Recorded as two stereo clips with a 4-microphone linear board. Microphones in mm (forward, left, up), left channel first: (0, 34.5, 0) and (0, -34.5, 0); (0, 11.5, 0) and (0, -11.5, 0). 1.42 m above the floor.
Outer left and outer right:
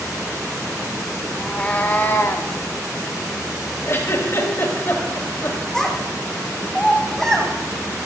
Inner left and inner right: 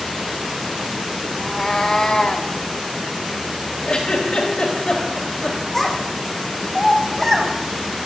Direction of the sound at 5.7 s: 10° left (ahead or behind).